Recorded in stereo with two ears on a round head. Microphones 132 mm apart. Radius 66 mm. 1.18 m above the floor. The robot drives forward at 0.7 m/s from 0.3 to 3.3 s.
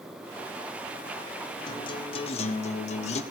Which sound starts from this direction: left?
A guitar, at 1.7 s.